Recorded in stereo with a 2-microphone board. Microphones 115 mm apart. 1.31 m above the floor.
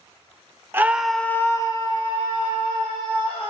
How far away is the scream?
About 1.3 m.